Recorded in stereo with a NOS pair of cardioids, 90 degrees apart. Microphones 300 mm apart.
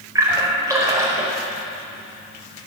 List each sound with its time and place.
0.1 s a splash: 10° right, 4 m